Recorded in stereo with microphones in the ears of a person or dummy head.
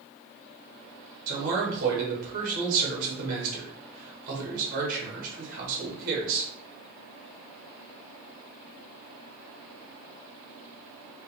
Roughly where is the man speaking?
Right.